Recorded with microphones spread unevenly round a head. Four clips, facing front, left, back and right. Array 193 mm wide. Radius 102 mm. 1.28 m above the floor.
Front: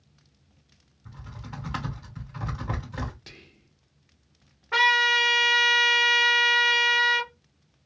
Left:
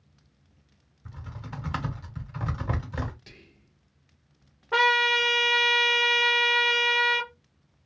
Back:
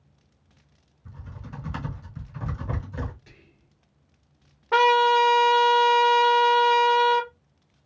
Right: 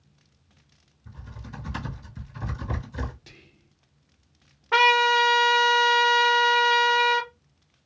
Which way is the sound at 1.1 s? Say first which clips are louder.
Left 2 dB, front 1 dB; 80° left.